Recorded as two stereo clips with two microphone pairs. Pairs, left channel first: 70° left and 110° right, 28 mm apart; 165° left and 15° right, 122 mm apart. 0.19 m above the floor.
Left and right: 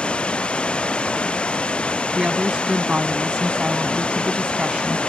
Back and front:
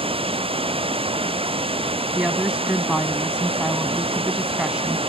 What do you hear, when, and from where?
0.0 s running water: 25° left
2.1 s a woman speaking: 90° right